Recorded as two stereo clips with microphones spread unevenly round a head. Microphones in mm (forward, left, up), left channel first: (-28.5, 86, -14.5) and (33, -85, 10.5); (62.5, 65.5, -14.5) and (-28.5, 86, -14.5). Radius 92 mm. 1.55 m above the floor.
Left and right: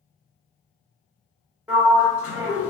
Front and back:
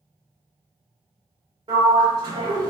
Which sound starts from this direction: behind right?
A sliding door, at 1.7 s.